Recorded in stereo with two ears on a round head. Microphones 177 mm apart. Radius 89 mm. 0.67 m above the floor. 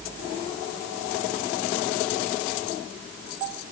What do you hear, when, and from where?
Only background noise.